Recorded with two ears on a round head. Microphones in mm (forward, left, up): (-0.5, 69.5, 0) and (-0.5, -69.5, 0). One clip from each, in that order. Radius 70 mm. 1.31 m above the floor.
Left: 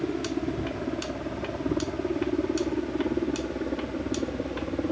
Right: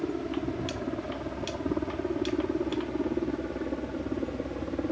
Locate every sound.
0.0 s a helicopter: 15° right (ahead or behind); by 4.9 s 5° right (ahead or behind)